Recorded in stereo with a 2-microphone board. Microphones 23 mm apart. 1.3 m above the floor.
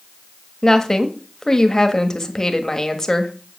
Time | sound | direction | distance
0.6 | a woman speaking | 20° left (ahead or behind) | 1.5 m